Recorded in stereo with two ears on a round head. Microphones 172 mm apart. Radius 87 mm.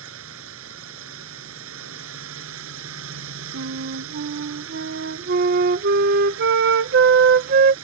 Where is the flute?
55° right (ahead or behind).